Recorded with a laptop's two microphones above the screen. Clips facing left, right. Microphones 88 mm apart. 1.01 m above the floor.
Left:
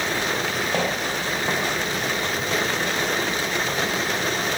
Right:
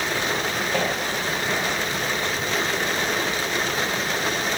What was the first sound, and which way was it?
Footsteps, 20° left (ahead or behind).